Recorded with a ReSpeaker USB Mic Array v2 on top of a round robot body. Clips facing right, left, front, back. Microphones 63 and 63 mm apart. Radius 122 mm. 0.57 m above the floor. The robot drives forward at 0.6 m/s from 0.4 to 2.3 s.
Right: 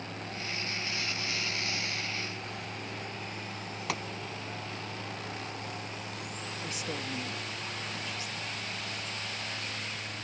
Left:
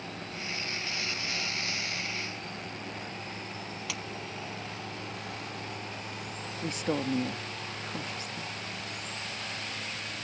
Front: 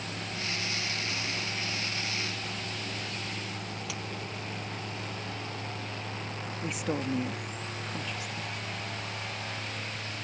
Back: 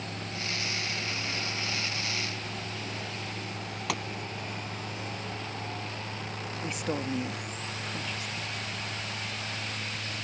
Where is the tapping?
140° right.